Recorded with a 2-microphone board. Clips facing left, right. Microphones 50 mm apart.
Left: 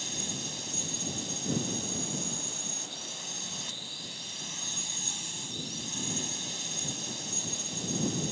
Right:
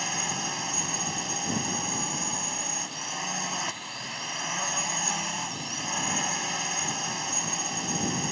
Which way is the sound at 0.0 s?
55° right (ahead or behind).